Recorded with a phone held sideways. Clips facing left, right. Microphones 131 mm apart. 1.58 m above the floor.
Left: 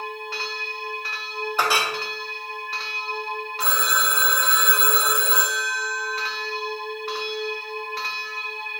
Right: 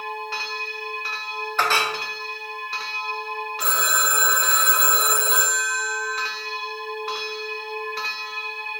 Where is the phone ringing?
40° right (ahead or behind), 0.6 m.